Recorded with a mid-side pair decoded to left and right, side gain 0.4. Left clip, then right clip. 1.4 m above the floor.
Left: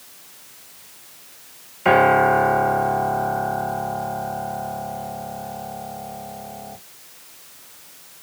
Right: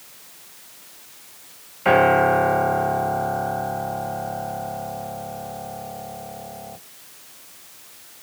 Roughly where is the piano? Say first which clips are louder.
Left 1 dB; ahead.